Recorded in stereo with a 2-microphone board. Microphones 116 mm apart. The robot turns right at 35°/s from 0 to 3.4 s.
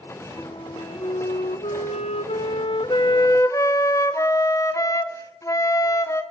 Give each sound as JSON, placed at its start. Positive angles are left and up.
{"t": 0.4, "sound": "a flute", "azimuth_deg": 45, "distance_m": 0.8}